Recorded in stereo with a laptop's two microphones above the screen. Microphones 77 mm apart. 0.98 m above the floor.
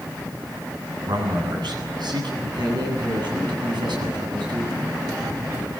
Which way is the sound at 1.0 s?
80° right.